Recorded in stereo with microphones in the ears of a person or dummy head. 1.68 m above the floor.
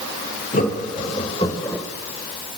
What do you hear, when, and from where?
0.5 s laughter: 50° left (ahead or behind), 3 m; by 1.8 s 15° left (ahead or behind), 1.6 m